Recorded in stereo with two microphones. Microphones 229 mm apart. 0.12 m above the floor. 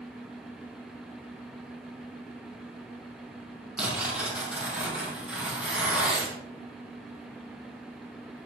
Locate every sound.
3.8 s tearing paper: 5° right (ahead or behind), 5.5 m